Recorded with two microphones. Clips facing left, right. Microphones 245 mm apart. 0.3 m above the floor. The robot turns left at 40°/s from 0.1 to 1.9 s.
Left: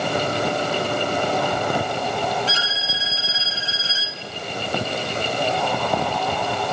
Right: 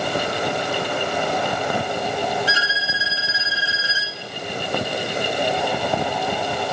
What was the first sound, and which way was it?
A violin, 10° right (ahead or behind).